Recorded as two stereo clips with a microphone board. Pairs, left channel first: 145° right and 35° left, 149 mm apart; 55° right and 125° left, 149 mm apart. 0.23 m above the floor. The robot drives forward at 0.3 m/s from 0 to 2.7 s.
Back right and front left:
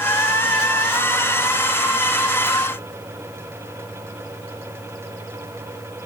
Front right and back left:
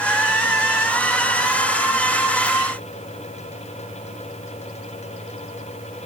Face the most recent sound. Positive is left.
No sound to turn to.